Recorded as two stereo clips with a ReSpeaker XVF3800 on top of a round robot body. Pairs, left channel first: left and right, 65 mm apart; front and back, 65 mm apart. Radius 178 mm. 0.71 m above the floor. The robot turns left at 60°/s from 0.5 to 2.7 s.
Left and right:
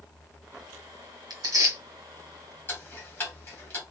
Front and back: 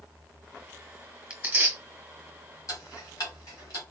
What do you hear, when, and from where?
1.3 s tearing paper: 115° right, 1.1 m; by 1.8 s 145° right, 1.1 m
2.7 s ticking: 35° left, 1.5 m